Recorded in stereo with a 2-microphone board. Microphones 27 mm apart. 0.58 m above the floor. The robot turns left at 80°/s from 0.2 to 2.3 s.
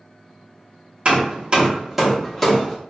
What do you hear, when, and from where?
1.1 s hammering: 40° right (ahead or behind), 0.8 m; by 2.8 s 10° left (ahead or behind), 0.8 m